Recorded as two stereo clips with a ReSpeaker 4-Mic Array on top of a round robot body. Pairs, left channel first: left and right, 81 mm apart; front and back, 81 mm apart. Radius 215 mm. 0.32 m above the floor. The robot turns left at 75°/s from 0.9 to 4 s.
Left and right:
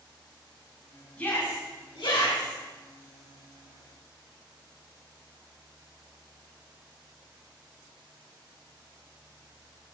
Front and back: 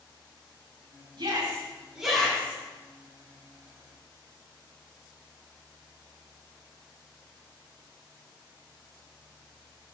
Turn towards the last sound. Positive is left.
turn(degrees=-50)